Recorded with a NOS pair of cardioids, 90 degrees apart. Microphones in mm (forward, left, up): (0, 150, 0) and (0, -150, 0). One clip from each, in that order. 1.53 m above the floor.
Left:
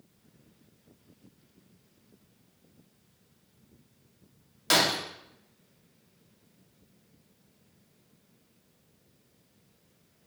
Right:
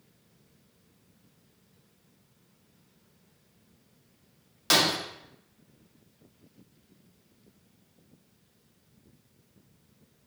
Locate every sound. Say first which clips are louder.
4.7 s breaking glass: right 1 dB; 10° right, 2.5 m